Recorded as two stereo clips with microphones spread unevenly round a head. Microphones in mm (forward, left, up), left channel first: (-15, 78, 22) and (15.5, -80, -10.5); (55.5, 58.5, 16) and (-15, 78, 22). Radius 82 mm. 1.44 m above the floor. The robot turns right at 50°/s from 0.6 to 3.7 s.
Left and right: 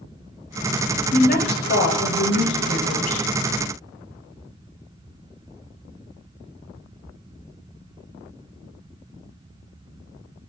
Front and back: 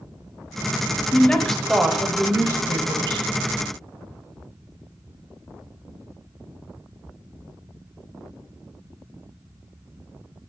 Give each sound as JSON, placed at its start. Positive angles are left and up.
{"t": 1.1, "sound": "a woman speaking", "azimuth_deg": 50, "distance_m": 0.7}